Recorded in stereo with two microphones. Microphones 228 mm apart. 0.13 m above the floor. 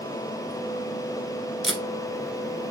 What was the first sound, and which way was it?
Tape being pulled, centre (ahead or behind).